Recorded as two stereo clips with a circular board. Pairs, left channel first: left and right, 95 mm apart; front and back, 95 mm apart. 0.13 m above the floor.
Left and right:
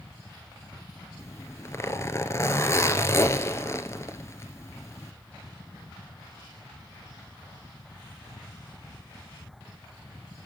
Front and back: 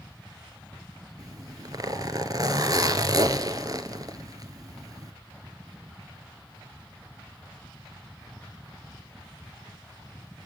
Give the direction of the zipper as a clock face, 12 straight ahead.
7 o'clock.